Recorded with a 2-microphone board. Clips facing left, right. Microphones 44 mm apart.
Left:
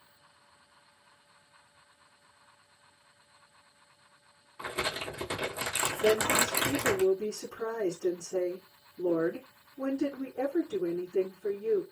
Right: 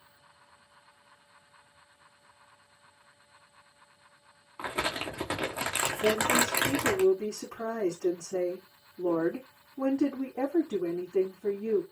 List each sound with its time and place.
4.6 s crumpling: 35° right (ahead or behind), 2 m
6.0 s a woman speaking: 65° right (ahead or behind), 4 m